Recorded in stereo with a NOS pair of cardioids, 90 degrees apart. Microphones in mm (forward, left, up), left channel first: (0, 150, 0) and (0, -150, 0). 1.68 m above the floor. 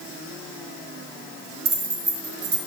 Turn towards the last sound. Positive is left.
turn(degrees=-60)